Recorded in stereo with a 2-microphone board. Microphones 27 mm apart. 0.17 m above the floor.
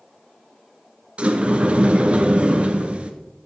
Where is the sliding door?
45° right (ahead or behind), 1.1 m.